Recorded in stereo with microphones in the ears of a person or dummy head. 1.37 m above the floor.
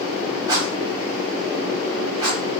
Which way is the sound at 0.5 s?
25° right (ahead or behind).